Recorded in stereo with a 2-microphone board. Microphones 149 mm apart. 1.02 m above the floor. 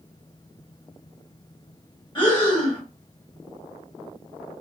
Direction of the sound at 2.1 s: 30° left (ahead or behind).